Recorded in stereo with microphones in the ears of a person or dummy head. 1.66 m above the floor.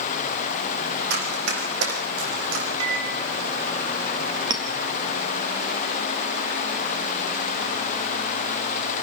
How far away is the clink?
About 1.9 m.